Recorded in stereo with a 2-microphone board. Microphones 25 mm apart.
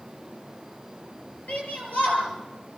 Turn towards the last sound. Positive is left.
turn(degrees=80)